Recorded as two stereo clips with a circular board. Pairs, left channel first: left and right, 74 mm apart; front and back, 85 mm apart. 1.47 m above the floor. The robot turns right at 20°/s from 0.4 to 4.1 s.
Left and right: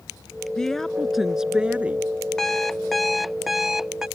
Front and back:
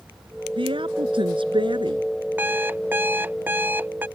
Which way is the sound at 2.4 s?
165° left.